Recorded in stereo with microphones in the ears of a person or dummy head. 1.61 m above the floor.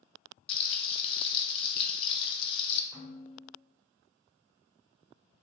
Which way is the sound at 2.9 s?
20° right (ahead or behind).